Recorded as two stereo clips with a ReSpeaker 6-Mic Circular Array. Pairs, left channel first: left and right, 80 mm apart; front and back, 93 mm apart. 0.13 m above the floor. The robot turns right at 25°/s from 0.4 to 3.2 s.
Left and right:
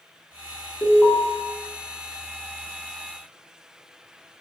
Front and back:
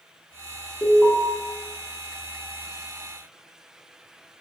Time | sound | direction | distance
0.8 | an alarm | 5° left | 0.8 m